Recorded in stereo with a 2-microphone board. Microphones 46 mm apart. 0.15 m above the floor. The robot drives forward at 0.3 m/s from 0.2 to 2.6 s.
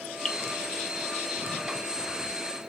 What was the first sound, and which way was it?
Dripping, 15° left (ahead or behind).